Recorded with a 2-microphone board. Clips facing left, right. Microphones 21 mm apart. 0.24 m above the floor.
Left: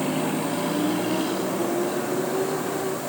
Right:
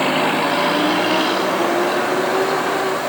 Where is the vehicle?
45° right (ahead or behind); by 3.1 s 40° right (ahead or behind).